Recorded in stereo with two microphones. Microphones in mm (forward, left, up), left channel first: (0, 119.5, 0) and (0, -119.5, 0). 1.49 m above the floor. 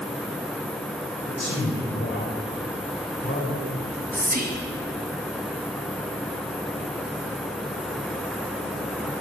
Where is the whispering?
40° right (ahead or behind), 2 m.